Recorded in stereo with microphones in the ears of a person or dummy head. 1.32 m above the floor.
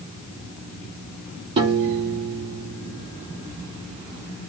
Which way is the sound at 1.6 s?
25° right (ahead or behind).